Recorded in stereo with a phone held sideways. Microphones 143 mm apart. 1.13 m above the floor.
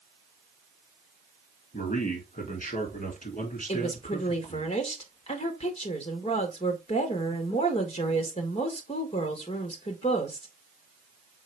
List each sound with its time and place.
1.7 s a man speaking: 65° left (ahead or behind), 3 m
3.7 s a woman speaking: 45° left (ahead or behind), 1.8 m